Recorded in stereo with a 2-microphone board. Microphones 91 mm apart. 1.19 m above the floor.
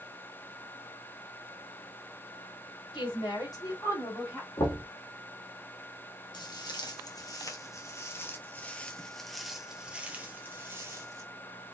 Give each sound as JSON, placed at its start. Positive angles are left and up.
{"t": 2.9, "sound": "a woman speaking", "side_deg": 65, "distance_m": 3.0}
{"t": 4.6, "sound": "knocking", "side_deg": 70, "distance_m": 2.0}
{"t": 6.3, "sound": "footsteps", "side_deg": 50, "distance_m": 1.8}